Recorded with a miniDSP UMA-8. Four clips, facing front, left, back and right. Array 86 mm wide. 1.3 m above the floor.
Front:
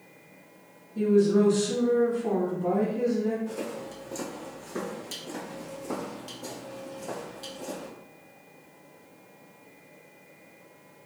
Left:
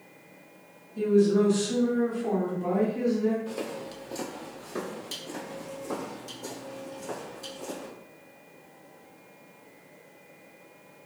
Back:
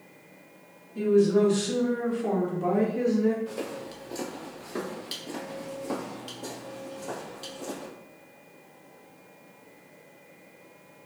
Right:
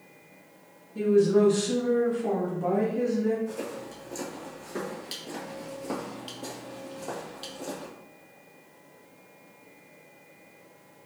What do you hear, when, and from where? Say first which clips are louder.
0.9 s a woman speaking: right 1 dB, even; 120° right, 1.9 m; by 3.4 s 165° left, 0.8 m
3.5 s footsteps: left 1 dB, even; 115° left, 1.5 m; by 7.9 s 100° right, 2.5 m